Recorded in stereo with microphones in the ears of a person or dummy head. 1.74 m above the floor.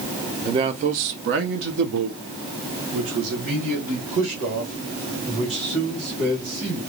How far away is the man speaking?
About 0.5 m.